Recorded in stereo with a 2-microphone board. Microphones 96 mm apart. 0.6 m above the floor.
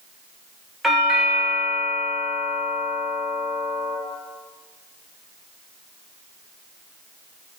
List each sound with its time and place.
0.8 s a doorbell: centre (ahead or behind), 1.1 m